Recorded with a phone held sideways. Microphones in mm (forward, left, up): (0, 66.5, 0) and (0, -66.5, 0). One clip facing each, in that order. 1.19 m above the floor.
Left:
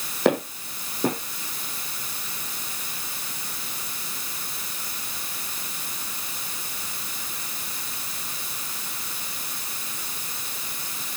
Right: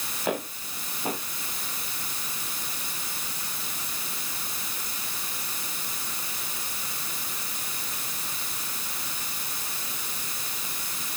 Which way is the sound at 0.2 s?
70° left (ahead or behind).